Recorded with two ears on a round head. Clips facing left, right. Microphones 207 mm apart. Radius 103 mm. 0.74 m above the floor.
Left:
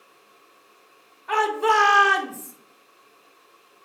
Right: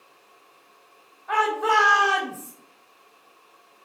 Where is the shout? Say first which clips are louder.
Left 2 dB; 45° left (ahead or behind), 2.5 m; by 2.5 s 35° left (ahead or behind), 3 m.